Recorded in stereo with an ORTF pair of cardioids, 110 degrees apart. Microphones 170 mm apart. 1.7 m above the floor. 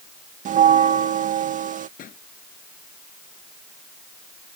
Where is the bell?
50° right.